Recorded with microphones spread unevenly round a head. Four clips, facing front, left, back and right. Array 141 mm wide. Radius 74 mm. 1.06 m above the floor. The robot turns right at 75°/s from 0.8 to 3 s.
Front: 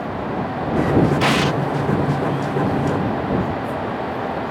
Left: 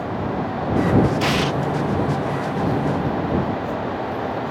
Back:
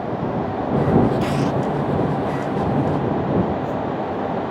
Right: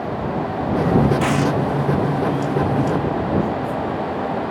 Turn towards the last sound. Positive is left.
turn(degrees=130)